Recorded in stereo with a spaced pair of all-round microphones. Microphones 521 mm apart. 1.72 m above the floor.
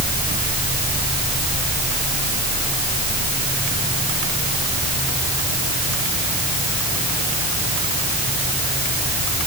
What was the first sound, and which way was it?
Only background noise.